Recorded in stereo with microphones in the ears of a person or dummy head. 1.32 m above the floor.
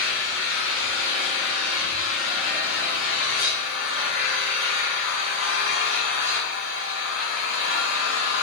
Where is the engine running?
80° left, 6 m.